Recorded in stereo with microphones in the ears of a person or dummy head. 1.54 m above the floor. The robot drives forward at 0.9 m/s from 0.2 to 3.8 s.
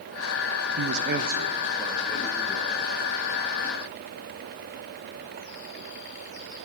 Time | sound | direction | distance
0.8 | a man speaking | 85° right | 0.5 m